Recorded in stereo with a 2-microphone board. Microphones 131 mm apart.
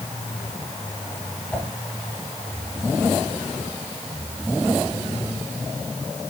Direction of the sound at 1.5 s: 10° left (ahead or behind).